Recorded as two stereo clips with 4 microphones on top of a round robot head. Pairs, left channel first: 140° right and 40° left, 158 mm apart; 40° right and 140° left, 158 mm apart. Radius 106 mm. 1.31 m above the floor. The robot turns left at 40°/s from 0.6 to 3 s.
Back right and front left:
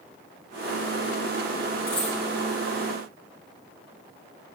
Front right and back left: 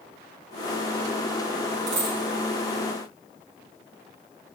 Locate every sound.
1.9 s a dropped coin: 150° left, 1.6 m; by 2.2 s 140° left, 1.6 m